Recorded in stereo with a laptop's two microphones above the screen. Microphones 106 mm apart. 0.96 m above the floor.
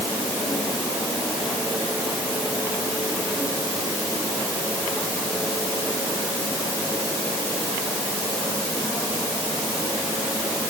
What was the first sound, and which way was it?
Only background noise.